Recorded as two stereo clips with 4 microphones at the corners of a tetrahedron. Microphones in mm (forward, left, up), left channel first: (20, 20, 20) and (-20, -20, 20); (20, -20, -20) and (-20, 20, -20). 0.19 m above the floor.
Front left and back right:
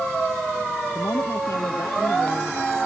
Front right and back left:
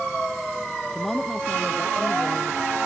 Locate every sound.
0.9 s a woman speaking: 45° left; by 2.8 s 25° left